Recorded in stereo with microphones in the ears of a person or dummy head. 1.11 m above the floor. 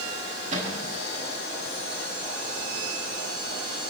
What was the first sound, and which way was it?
A cupboard door, 50° right (ahead or behind).